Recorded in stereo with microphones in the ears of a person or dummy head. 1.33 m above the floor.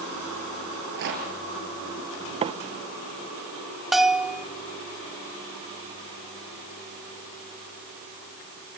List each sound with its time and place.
0.7 s a rattle: 60° right (ahead or behind), 4.5 m
2.4 s a microwave: 30° right (ahead or behind), 0.6 m
3.9 s a bell: centre (ahead or behind), 0.8 m